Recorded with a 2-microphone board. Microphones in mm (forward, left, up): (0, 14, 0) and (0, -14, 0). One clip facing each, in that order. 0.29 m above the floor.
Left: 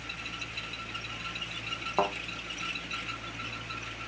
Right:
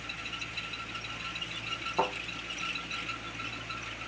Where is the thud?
35° left (ahead or behind), 3 m.